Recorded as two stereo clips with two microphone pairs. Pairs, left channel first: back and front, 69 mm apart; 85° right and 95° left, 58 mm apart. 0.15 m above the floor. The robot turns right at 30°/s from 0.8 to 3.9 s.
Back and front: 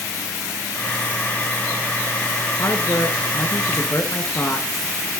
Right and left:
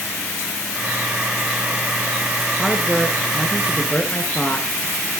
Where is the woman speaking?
175° left, 2 m; by 4.7 s 145° right, 2 m.